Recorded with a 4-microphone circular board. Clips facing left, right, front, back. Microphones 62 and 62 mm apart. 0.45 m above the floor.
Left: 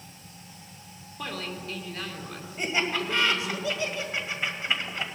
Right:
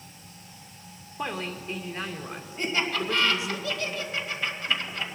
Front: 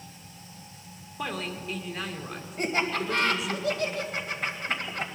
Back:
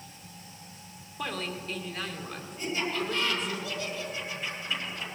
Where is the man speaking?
75° right, 1.3 m.